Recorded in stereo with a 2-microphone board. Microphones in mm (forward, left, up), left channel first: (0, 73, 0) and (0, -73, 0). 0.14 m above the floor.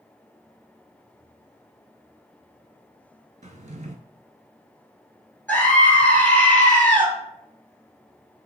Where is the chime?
No chime in this recording.